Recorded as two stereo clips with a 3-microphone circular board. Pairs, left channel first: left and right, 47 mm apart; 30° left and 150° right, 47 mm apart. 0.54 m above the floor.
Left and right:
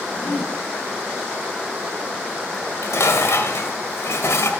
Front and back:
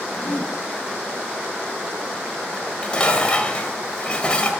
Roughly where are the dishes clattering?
Left.